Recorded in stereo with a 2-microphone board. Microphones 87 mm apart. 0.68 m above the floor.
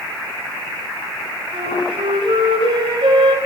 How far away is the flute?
About 2.5 m.